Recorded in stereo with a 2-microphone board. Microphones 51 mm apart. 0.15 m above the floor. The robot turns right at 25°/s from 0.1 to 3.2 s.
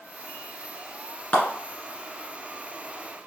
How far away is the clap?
About 1.3 m.